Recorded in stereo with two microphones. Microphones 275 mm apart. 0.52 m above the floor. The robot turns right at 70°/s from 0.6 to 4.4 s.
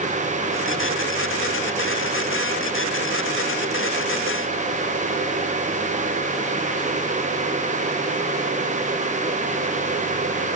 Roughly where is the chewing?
No chewing in this recording.